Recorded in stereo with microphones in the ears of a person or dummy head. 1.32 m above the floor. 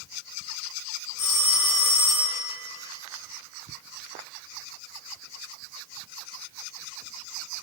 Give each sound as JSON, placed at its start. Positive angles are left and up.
{"t": 1.2, "sound": "a phone ringing", "side_deg": 20, "distance_m": 1.8}